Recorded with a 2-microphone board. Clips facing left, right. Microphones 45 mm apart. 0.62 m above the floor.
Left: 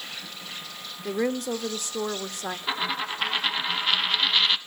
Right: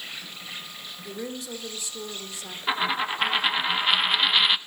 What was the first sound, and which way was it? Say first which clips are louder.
An insect: even; 15° right (ahead or behind).